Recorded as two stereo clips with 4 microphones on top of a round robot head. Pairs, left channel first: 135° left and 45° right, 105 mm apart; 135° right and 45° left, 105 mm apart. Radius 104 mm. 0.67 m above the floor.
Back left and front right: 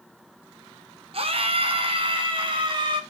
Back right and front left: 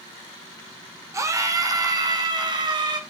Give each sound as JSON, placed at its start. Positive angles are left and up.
{"t": 1.1, "sound": "a scream", "azimuth_deg": -15, "distance_m": 2.5}